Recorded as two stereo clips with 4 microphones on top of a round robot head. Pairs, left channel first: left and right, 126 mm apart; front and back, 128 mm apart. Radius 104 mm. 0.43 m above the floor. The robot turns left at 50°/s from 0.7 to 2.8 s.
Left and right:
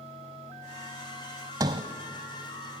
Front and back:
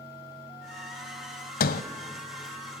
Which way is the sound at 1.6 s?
20° right.